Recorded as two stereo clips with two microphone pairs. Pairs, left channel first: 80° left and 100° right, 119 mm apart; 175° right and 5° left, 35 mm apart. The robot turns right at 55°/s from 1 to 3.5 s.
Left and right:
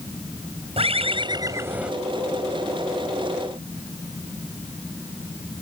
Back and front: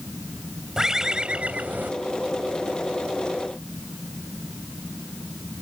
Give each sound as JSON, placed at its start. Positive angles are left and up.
{"t": 0.8, "sound": "a bird", "azimuth_deg": -70}